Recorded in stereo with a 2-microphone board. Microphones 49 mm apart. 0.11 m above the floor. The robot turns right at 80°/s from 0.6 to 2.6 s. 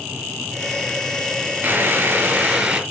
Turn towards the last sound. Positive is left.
turn(degrees=-25)